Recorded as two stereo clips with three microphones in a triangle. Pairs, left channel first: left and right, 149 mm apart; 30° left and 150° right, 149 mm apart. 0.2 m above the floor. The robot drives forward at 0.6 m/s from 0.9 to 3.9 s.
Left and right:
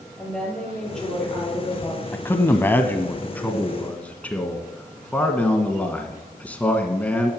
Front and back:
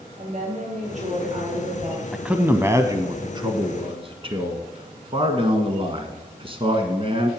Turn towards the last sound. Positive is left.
turn(degrees=170)